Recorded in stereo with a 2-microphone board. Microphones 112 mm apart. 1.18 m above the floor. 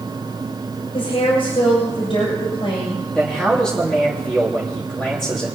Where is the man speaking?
5° left (ahead or behind), 2.5 m.